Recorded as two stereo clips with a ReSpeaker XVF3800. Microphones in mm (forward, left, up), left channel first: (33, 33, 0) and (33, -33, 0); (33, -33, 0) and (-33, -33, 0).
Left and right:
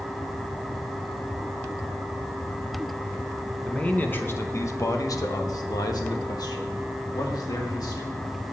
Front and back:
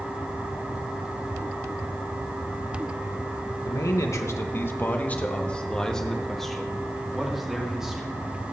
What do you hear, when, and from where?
3.6 s a man speaking: 15° left, 1.0 m; by 8.2 s 100° left, 2.5 m